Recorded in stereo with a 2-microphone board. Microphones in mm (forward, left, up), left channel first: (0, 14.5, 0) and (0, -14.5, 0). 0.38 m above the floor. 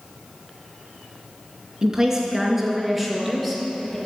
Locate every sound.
1.8 s a woman speaking: 20° right (ahead or behind), 4 m; by 4.0 s centre (ahead or behind), 5 m